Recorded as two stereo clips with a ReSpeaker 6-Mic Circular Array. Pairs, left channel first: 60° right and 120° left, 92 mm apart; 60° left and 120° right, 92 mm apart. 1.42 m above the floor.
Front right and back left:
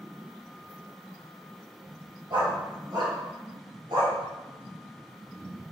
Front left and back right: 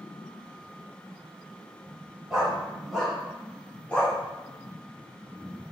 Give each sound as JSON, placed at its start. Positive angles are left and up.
{"t": 2.3, "sound": "a dog barking", "azimuth_deg": 155, "distance_m": 3.0}